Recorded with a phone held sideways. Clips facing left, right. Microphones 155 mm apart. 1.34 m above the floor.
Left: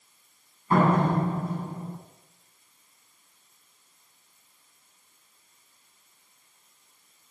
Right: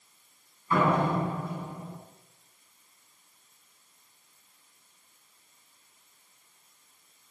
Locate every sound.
0.7 s a door slam: 50° left (ahead or behind), 8.5 m